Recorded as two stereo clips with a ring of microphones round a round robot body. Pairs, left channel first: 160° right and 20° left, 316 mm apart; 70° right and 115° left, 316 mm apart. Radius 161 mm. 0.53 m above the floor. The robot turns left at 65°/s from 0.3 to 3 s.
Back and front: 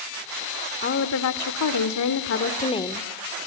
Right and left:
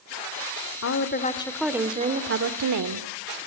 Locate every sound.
0.8 s a woman speaking: 105° right, 1.8 m; by 3.1 s 115° left, 1.8 m